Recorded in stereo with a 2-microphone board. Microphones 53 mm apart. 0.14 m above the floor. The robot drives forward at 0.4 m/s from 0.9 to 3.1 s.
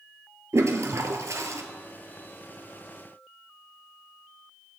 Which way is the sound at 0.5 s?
65° right (ahead or behind).